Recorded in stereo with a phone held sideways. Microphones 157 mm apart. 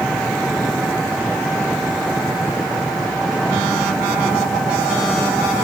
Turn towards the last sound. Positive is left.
turn(degrees=0)  # may be behind; listen again after turning